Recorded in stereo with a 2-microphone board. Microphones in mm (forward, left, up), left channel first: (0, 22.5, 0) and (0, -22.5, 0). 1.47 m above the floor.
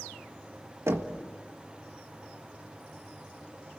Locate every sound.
0.9 s knocking: 75° right (ahead or behind), 1.4 m